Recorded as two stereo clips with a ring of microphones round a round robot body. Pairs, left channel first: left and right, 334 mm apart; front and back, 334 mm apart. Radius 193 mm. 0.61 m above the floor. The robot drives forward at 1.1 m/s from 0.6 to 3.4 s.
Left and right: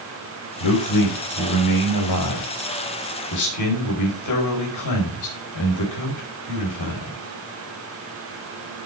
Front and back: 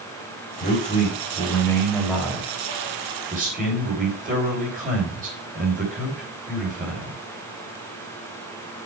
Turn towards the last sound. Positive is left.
turn(degrees=115)